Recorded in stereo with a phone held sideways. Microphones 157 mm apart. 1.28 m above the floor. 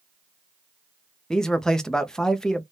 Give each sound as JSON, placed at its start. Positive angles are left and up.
{"t": 1.3, "sound": "a man speaking", "side_deg": 5, "distance_m": 0.6}